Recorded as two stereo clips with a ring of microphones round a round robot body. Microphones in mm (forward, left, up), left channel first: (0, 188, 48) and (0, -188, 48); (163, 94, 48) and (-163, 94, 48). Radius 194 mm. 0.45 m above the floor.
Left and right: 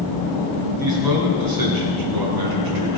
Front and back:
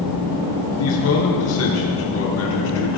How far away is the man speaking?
About 5 m.